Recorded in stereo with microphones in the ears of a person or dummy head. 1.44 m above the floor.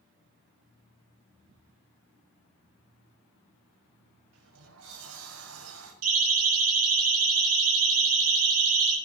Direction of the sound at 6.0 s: 80° right.